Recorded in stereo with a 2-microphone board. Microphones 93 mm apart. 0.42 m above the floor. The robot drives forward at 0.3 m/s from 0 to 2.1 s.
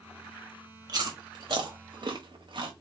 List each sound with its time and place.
0.9 s chewing: 50° right (ahead or behind), 1.3 m; by 2.7 s 60° right (ahead or behind), 1.2 m